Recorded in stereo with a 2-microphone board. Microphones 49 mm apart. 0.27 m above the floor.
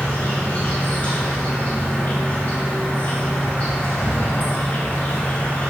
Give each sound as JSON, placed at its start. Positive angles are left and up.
{"t": 0.0, "sound": "an insect", "side_deg": 30, "distance_m": 1.9}